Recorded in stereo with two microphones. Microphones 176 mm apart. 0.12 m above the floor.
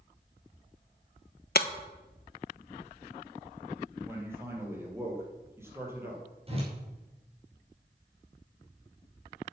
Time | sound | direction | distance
1.6 | breaking glass | 65° left (ahead or behind) | 0.7 m
4.0 | a man speaking | 15° right (ahead or behind) | 3.5 m
6.5 | a whoosh | 35° right (ahead or behind) | 4 m